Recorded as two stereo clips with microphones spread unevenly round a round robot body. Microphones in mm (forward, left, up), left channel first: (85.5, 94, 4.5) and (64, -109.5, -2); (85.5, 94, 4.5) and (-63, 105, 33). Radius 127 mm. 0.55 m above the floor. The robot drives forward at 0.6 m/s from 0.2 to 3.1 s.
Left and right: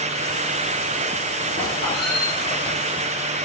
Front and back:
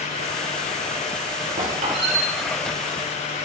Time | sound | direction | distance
1.6 | a squeak | 155° left | 5 m